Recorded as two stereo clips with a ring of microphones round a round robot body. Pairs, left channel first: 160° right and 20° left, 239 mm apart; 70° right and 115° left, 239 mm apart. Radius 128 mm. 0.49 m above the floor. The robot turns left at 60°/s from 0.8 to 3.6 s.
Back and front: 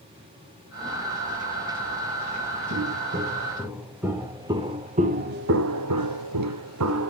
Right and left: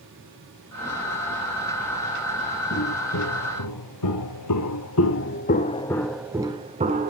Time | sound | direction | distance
2.7 | footsteps | 20° right | 2.5 m